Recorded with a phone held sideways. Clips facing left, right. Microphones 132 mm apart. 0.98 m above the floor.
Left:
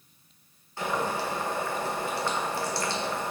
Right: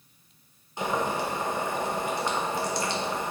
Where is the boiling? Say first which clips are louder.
Right 1 dB; 20° right (ahead or behind), 0.8 m.